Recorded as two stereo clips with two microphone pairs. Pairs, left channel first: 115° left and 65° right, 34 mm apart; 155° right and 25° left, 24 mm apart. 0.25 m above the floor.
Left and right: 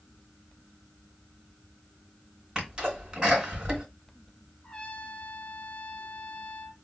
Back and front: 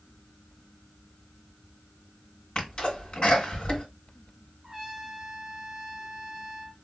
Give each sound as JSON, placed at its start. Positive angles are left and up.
{"t": 2.5, "sound": "a sneeze", "azimuth_deg": -120, "distance_m": 1.8}
{"t": 4.6, "sound": "a trumpet", "azimuth_deg": 85, "distance_m": 0.7}